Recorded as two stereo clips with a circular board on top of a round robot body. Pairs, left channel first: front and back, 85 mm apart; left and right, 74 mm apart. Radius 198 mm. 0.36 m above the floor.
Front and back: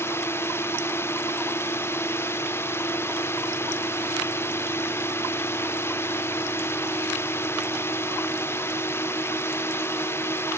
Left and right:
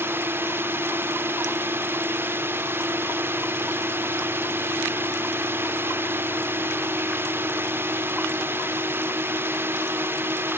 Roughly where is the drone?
Ahead right.